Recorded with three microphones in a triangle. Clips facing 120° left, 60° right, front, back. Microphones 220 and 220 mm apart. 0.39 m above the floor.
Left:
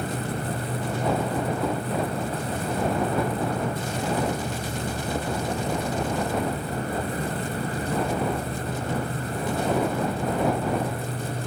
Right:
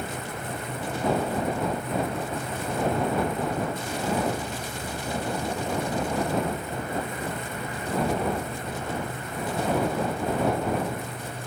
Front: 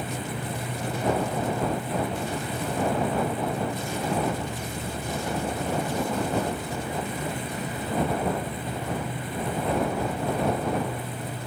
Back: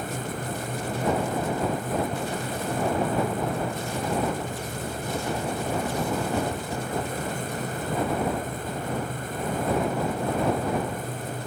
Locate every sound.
0.0 s an insect: 80° left